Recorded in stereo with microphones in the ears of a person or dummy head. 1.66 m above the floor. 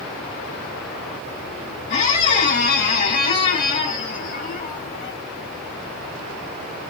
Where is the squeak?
40° left (ahead or behind), 1.3 m.